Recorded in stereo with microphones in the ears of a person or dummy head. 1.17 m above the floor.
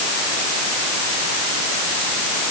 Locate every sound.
Only background noise.